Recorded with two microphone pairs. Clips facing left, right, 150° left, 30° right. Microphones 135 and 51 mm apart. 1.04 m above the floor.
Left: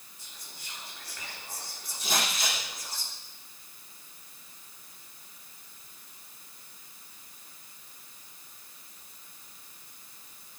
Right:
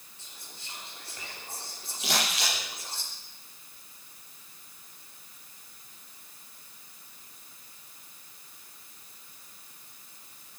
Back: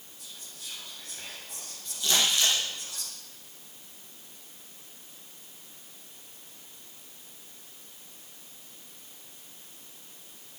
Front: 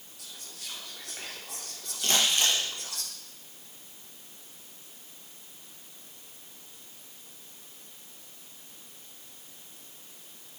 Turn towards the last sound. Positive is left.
turn(degrees=-70)